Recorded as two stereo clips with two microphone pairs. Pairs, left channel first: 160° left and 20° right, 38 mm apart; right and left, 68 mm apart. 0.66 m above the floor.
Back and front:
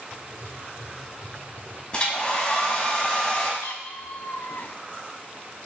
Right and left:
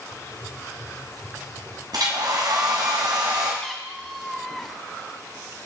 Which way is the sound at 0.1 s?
130° left.